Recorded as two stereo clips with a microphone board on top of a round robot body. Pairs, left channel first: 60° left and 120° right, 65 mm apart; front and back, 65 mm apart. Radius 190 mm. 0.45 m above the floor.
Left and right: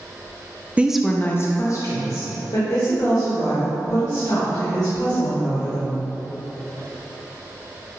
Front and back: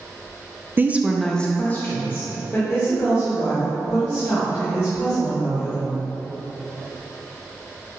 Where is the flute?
I don't hear a flute.